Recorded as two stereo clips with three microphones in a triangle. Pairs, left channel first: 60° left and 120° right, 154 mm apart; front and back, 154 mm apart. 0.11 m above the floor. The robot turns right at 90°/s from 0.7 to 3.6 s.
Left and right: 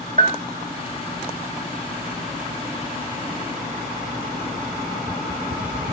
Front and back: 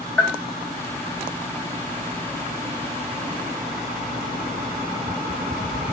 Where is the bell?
80° right, 1.2 m.